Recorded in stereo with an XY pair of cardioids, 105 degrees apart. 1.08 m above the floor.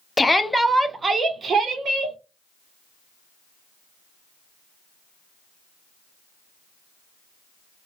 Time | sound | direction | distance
0.2 | a shout | 15° left | 0.6 m